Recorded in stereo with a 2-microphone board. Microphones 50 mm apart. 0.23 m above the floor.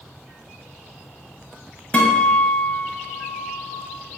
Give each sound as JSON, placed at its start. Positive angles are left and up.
{"t": 1.9, "sound": "a guitar", "side_deg": 25, "distance_m": 0.8}